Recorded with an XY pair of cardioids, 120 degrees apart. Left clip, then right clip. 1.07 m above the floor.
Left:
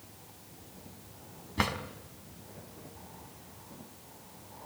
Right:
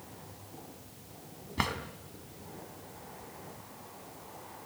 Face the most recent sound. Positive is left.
turn(degrees=5)